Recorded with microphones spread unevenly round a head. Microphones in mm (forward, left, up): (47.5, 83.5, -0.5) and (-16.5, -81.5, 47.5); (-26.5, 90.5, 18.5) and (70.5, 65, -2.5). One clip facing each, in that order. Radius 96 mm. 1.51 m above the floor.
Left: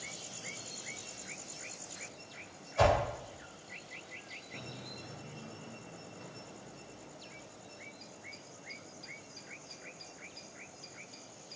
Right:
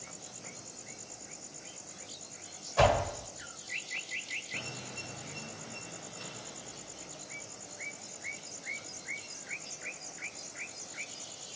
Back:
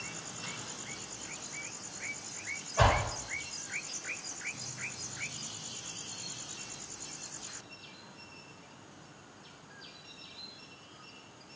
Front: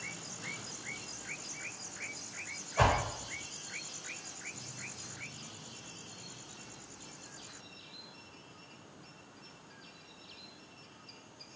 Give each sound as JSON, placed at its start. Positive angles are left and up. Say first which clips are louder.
{"t": 2.8, "sound": "a whoosh", "louder": "right 2 dB, back 1 dB", "azimuth_deg": -100, "distance_m": 1.1}